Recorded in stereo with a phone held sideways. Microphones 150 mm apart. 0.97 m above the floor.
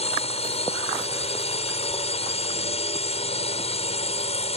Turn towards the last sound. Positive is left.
turn(degrees=45)  # may be behind; listen again after turning